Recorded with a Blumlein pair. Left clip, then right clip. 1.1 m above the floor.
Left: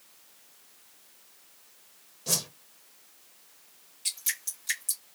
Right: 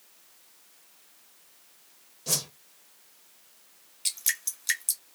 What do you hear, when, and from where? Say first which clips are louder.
2.3 s a whoosh: even; 5° right, 0.5 m
4.0 s dripping: right 3 dB; 70° right, 1.9 m